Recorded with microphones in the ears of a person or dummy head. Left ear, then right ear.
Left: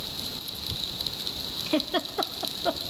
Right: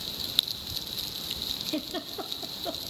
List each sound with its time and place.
1.7 s a giggle: 35° left (ahead or behind), 0.7 m